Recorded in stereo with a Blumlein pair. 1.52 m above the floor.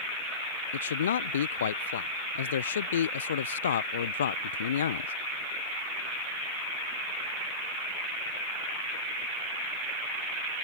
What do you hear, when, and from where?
0.7 s a man speaking: 65° left